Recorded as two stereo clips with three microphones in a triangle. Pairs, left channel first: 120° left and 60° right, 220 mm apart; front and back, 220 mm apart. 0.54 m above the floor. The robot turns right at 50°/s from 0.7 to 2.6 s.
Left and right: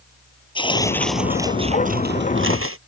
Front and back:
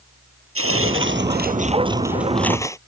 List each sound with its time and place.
0.6 s tearing paper: 170° right; by 2.8 s 75° right